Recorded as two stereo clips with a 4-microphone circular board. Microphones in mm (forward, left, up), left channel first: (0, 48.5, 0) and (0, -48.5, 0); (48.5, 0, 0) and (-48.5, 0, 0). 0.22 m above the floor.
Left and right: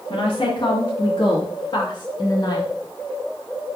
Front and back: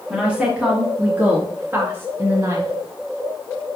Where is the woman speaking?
100° left, 4 m; by 2.7 s 125° left, 2.5 m.